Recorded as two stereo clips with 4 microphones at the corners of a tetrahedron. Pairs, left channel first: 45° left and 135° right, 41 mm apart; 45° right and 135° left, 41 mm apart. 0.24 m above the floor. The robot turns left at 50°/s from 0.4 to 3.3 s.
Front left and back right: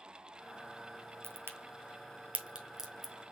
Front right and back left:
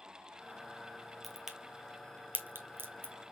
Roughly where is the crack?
Behind right.